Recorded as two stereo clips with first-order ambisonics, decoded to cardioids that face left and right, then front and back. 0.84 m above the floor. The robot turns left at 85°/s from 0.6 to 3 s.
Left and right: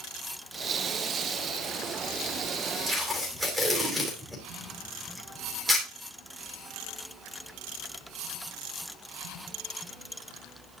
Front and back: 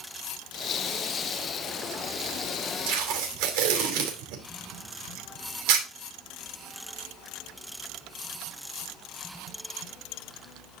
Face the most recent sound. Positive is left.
turn(degrees=180)